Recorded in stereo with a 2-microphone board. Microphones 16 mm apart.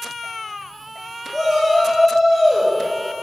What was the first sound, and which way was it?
A shout, 5° left (ahead or behind).